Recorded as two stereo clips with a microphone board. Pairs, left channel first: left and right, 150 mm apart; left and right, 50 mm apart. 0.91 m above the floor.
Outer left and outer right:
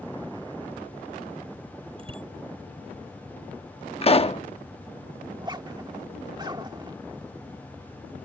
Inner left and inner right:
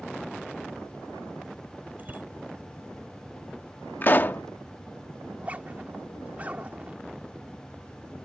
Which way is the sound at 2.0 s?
35° right (ahead or behind).